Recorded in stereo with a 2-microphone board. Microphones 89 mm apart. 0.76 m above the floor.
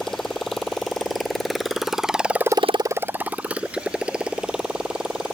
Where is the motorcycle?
5° left (ahead or behind); by 5.3 s 10° right (ahead or behind).